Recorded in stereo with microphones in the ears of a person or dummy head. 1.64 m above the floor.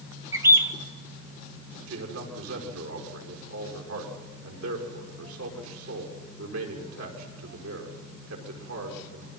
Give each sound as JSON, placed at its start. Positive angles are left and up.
{"t": 0.3, "sound": "a bird", "side_deg": -20, "distance_m": 1.2}
{"t": 1.9, "sound": "a man speaking", "side_deg": -85, "distance_m": 5.5}